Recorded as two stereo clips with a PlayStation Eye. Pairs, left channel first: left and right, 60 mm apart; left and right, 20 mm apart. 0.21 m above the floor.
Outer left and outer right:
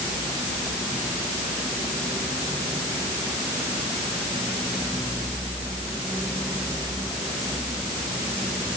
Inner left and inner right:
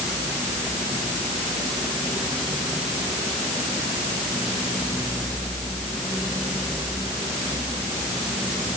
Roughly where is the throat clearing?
No throat clearing in this recording.